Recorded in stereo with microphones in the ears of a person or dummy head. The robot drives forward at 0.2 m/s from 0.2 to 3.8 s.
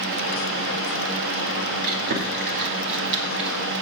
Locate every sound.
1.8 s chewing: 55° right (ahead or behind), 1.4 m; by 3.6 s 70° right (ahead or behind), 1.3 m